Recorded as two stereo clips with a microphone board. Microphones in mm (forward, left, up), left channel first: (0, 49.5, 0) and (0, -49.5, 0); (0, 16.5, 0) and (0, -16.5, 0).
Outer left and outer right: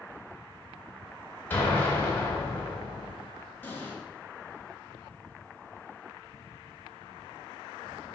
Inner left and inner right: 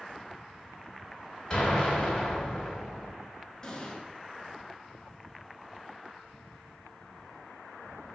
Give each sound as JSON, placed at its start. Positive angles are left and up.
{"t": 1.5, "sound": "an explosion", "side_deg": 20, "distance_m": 1.5}
{"t": 3.6, "sound": "an explosion", "side_deg": 25, "distance_m": 0.8}